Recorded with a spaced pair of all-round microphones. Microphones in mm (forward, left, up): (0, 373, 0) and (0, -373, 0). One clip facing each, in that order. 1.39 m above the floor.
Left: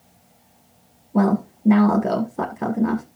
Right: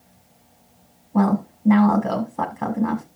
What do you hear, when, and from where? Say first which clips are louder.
1.1 s a woman speaking: left 1 dB; 15° right (ahead or behind), 1.5 m